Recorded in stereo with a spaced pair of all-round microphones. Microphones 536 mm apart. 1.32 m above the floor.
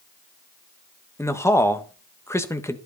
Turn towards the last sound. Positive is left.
turn(degrees=5)  # may be behind; listen again after turning